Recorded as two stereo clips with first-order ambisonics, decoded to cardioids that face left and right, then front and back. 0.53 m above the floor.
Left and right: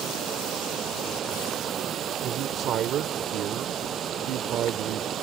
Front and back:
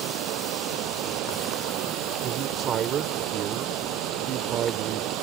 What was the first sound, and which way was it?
Running water, 150° right.